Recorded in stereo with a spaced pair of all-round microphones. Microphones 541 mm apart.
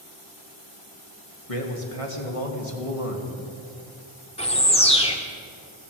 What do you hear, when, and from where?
1.5 s a man speaking: 80° left, 2.5 m
4.4 s a bird: 10° left (ahead or behind), 1.5 m